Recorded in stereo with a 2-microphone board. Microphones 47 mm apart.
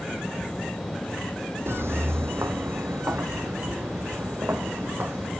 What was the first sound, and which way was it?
Footsteps, 60° right (ahead or behind).